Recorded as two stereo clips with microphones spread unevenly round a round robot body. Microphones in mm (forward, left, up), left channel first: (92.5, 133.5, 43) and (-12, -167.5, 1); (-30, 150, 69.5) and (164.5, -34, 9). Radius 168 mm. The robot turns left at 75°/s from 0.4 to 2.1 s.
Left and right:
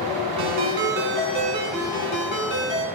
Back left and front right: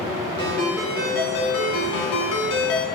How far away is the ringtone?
About 3 m.